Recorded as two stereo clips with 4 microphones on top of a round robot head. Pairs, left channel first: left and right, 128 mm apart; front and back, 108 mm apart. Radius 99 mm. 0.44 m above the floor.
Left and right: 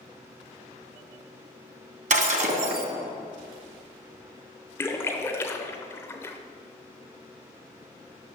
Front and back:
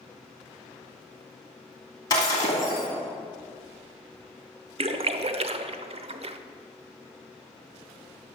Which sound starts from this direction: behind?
A splash, at 4.8 s.